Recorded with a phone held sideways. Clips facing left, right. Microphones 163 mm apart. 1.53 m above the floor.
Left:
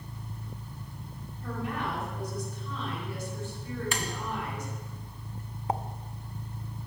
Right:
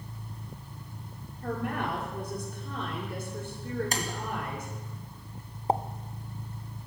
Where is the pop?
35° right (ahead or behind), 0.6 m.